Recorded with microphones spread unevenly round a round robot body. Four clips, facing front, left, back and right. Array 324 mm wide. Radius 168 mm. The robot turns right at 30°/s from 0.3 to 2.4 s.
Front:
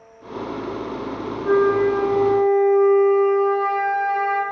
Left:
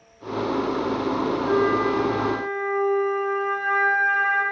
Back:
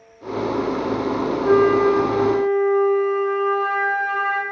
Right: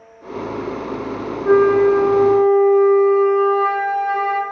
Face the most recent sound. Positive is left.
turn(degrees=-115)